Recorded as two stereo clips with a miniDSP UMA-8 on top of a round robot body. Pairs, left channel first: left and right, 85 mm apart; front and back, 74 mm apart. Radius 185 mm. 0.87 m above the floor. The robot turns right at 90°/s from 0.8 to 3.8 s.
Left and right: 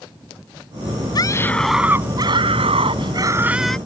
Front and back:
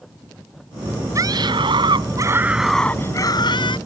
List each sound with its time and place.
1.1 s a scream: 130° left; by 3.8 s 10° left